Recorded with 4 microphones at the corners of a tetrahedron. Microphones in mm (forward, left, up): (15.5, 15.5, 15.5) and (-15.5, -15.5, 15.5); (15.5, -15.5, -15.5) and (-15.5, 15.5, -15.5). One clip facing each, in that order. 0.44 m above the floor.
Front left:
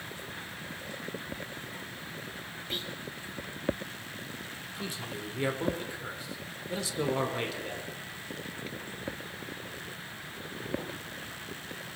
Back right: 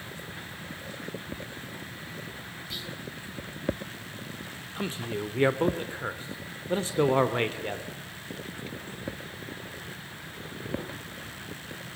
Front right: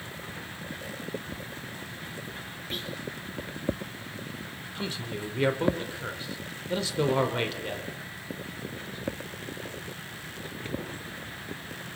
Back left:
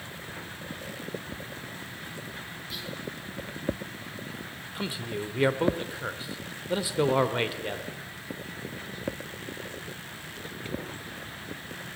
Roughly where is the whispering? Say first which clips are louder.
Front left 2 dB, front right 4 dB; ahead.